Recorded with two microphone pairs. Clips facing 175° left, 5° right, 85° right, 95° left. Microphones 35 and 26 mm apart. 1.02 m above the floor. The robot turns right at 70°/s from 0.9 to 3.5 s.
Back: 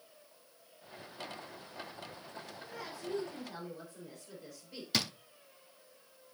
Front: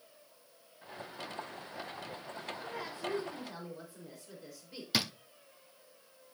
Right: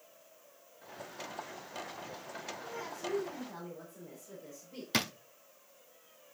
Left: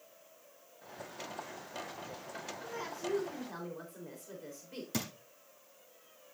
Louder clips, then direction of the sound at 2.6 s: Front 3 dB, left 2 dB; 20° left.